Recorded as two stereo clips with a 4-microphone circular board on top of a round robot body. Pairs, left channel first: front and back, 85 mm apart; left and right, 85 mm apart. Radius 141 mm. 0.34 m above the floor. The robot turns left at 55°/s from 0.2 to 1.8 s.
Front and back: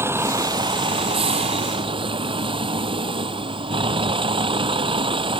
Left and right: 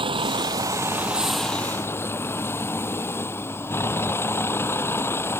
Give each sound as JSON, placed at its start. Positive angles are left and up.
{"t": 0.0, "sound": "a vehicle", "azimuth_deg": -115}